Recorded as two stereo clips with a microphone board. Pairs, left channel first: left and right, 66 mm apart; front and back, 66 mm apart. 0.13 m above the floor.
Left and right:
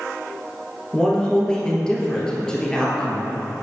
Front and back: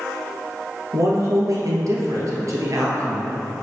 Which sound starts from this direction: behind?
A man speaking, at 0.9 s.